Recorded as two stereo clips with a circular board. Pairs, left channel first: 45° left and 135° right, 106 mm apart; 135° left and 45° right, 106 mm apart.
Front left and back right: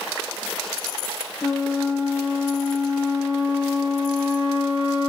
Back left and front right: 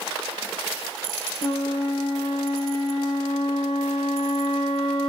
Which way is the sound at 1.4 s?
95° left.